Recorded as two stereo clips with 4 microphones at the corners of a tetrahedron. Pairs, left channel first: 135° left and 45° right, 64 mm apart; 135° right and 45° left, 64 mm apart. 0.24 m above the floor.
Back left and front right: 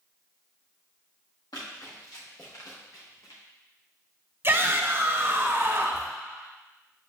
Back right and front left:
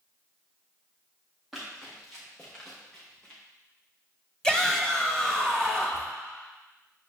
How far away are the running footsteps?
About 3.5 m.